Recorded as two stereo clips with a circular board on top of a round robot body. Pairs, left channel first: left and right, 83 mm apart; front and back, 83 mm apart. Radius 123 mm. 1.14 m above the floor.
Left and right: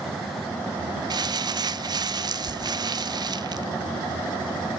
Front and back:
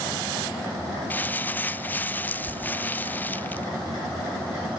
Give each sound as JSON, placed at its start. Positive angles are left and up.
{"t": 1.1, "sound": "crumpling", "azimuth_deg": -65, "distance_m": 1.0}